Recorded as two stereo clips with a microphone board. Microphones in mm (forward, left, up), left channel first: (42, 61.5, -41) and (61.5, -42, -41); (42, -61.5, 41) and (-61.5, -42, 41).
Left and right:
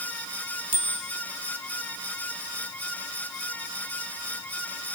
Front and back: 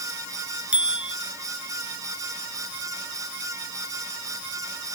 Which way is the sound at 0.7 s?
110° right.